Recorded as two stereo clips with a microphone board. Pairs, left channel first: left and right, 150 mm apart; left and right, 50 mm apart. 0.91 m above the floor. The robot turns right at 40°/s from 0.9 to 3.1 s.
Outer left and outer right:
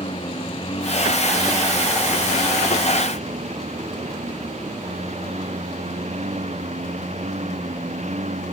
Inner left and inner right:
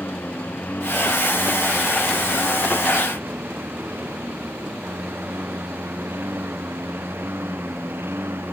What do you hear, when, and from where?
0.0 s a lawn mower: 40° left (ahead or behind); by 8.5 s 55° right (ahead or behind)